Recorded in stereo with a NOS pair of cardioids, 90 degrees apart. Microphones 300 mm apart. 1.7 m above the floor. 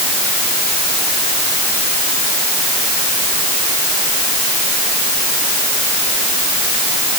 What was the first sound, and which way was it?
Only background noise.